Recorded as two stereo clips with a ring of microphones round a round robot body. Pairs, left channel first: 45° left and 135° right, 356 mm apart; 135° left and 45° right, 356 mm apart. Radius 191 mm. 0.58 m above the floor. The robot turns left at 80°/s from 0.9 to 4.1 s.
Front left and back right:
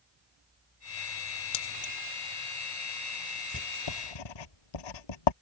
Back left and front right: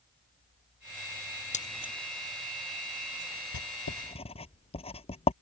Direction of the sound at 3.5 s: 105° left.